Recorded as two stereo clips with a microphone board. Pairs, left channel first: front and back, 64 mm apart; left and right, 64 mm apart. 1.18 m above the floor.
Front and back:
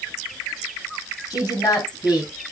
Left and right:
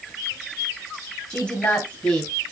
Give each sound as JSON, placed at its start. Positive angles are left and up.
{"t": 1.3, "sound": "a woman speaking", "azimuth_deg": 20, "distance_m": 7.5}